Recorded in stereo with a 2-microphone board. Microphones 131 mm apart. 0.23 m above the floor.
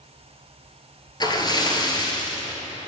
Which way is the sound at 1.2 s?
35° left (ahead or behind).